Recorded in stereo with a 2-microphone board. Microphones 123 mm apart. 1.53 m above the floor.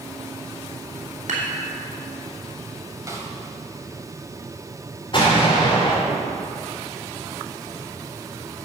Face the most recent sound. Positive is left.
turn(degrees=40)  # may be behind; listen again after turning